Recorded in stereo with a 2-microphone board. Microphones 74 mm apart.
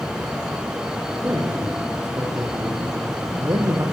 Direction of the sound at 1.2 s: 30° right (ahead or behind).